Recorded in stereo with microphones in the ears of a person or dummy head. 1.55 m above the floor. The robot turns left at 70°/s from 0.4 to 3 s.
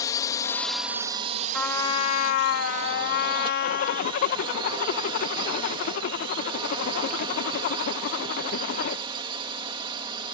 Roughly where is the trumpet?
Behind.